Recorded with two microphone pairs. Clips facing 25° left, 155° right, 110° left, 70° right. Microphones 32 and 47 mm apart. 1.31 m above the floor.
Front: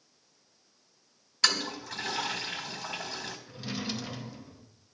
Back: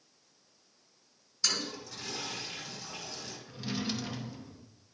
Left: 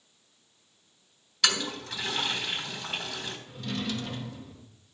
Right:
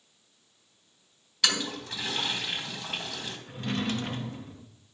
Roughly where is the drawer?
Ahead right.